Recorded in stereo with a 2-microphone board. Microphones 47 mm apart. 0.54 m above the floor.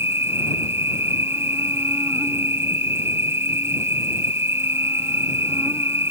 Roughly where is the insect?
Right.